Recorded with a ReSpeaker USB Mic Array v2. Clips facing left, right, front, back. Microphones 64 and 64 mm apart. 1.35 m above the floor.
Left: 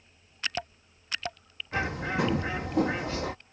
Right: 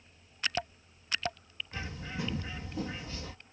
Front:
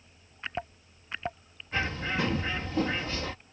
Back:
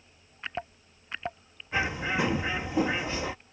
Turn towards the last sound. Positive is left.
turn(degrees=105)